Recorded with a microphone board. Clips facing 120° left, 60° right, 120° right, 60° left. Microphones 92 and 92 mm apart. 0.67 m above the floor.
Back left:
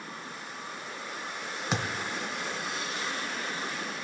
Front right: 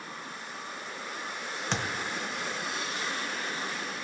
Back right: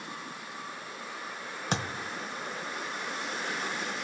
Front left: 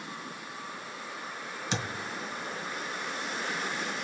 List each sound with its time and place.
1.7 s a thud: 160° right, 1.1 m